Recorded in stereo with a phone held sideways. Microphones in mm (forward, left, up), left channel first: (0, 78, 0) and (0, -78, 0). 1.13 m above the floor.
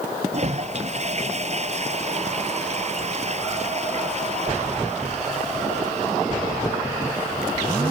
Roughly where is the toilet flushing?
Right.